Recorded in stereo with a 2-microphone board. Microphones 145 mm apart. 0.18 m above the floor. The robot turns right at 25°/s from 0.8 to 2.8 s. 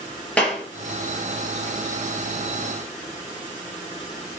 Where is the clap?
10° left (ahead or behind), 3 m.